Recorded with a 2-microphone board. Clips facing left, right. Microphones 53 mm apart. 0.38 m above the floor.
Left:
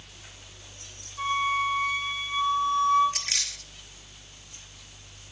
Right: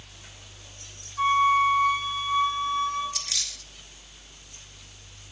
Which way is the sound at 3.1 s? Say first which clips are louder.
Left 2 dB; 45° left (ahead or behind).